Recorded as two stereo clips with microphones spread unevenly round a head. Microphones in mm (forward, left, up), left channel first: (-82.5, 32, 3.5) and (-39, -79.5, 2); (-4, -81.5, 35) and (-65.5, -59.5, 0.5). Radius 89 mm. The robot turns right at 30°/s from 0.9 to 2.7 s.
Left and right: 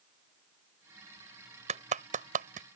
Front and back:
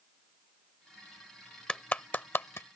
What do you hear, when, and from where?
1.7 s a clap: 90° right; by 2.7 s 65° right